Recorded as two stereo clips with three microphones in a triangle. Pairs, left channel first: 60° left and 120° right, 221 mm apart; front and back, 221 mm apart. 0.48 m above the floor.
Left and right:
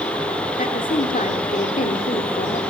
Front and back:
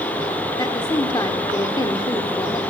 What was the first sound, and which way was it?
A woman speaking, 60° left.